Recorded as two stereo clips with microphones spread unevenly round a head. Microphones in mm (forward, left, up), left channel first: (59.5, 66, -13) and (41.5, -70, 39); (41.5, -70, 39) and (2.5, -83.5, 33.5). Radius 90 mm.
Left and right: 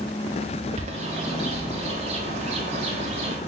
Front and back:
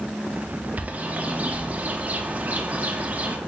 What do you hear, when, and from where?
0.8 s a bird: 110° right, 0.6 m